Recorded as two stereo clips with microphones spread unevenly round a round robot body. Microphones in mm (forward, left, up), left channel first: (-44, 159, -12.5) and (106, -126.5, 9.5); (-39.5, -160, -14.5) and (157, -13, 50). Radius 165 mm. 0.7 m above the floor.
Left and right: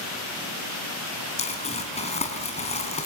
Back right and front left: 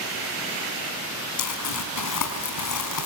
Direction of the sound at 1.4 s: 170° right.